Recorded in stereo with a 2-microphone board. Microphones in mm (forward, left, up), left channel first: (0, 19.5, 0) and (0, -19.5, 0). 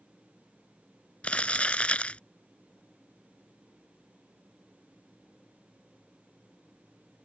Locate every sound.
1.2 s crumpling: 30° left (ahead or behind)